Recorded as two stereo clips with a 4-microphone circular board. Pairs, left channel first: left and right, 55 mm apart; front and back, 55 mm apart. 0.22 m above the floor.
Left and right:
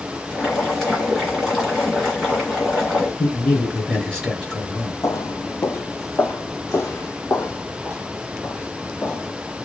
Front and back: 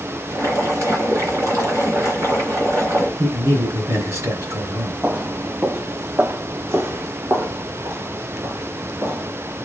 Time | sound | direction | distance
0.3 | boiling | 175° left | 3.5 m
3.2 | a man speaking | 165° left | 3 m
5.0 | footsteps | 115° left | 0.6 m